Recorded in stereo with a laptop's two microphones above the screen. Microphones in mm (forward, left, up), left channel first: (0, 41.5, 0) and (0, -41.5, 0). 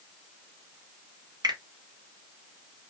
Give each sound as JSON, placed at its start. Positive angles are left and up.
{"t": 1.4, "sound": "a finger snap", "side_deg": -55, "distance_m": 0.9}